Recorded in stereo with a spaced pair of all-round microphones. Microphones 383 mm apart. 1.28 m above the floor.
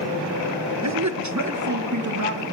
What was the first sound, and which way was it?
A man speaking, 45° right (ahead or behind).